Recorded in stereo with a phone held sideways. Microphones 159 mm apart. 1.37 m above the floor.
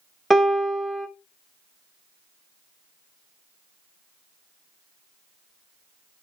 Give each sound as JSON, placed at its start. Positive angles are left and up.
{"t": 0.3, "sound": "a piano", "side_deg": 0, "distance_m": 1.2}